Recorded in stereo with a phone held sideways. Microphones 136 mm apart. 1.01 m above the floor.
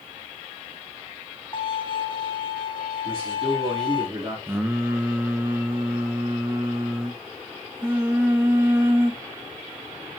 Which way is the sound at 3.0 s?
40° right (ahead or behind).